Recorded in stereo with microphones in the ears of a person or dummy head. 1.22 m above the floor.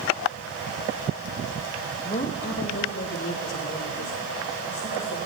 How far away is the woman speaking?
About 1.0 m.